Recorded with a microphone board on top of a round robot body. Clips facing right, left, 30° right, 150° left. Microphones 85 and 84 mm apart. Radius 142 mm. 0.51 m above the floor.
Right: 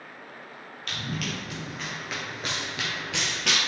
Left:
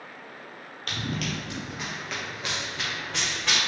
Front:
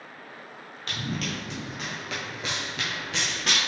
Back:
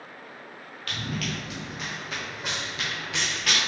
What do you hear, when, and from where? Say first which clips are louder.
0.9 s running footsteps: left 2 dB, even; 40° left, 1.0 m; by 3.6 s 95° right, 0.8 m